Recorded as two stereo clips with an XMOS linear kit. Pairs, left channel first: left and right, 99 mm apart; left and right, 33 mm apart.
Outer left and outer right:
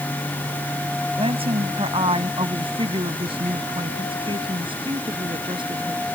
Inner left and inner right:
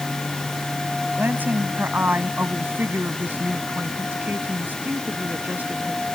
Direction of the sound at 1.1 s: 75° right (ahead or behind).